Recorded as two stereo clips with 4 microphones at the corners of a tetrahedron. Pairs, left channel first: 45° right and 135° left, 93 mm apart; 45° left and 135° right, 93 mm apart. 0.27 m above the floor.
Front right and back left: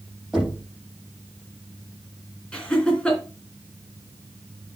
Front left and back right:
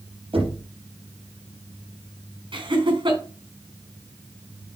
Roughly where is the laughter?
Behind right.